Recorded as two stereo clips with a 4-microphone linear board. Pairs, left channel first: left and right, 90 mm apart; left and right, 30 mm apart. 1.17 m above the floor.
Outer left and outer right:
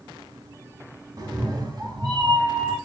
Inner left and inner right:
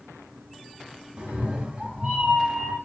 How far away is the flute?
No flute in this recording.